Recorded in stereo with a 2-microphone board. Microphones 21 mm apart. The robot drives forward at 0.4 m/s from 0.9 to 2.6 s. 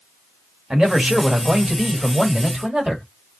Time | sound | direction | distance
0.7 | a man speaking | 50° right (ahead or behind) | 1.4 m